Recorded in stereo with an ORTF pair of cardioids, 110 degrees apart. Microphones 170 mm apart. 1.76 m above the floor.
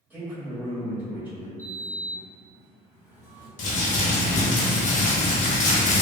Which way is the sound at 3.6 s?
50° left.